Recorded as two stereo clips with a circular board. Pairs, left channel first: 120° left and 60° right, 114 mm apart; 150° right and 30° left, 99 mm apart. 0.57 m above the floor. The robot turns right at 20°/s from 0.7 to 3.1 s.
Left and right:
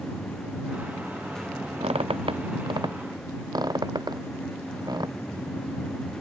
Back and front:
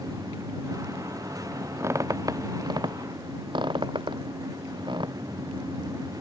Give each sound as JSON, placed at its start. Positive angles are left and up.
{"t": 1.8, "sound": "a squeak", "azimuth_deg": -30}